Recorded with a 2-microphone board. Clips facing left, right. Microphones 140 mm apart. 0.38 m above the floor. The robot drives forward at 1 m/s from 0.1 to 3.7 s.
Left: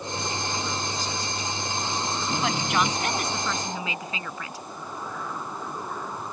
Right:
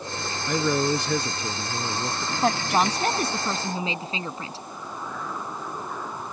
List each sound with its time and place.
0.5 s a man speaking: 70° right (ahead or behind); by 2.3 s 50° right (ahead or behind)
2.4 s a woman speaking: 40° right (ahead or behind); by 4.7 s 30° right (ahead or behind)